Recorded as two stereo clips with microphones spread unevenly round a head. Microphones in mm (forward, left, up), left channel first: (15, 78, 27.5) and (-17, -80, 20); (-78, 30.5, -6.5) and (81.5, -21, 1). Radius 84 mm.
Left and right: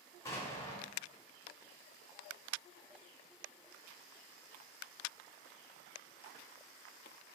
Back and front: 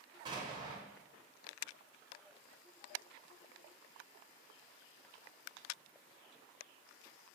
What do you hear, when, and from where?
0.2 s an explosion: 20° left, 0.7 m